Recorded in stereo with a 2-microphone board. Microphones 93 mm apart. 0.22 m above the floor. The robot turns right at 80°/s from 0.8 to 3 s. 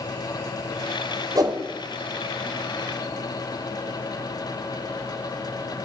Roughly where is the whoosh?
Right.